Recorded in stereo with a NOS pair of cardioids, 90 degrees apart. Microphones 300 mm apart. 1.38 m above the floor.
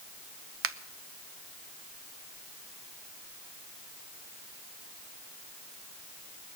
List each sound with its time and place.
0.6 s a finger snap: 45° right, 0.7 m